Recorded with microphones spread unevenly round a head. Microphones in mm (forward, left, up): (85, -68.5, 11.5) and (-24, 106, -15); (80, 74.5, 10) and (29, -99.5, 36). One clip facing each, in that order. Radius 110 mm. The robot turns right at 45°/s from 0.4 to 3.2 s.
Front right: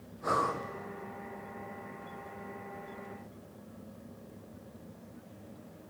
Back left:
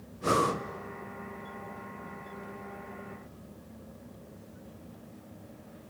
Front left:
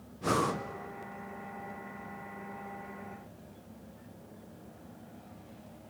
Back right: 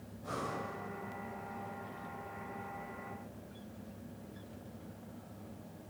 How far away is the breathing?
About 0.9 m.